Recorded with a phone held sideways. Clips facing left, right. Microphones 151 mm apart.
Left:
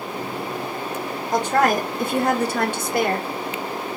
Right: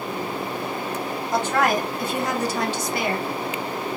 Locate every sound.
1.3 s a woman speaking: 35° left (ahead or behind), 0.8 m; by 3.3 s 50° left (ahead or behind), 1.0 m